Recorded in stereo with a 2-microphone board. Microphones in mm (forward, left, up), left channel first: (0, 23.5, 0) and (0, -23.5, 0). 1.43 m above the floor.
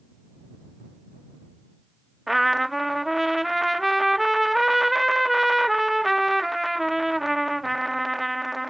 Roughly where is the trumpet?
Centre.